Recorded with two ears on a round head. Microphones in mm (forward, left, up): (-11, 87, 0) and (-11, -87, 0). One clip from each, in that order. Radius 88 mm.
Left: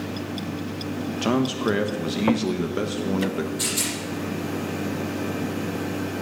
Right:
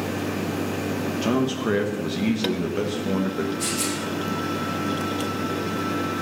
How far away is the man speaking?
About 1.0 m.